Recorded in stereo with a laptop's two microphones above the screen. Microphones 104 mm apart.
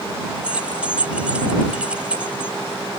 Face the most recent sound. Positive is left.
turn(degrees=-10)  # may be behind; listen again after turning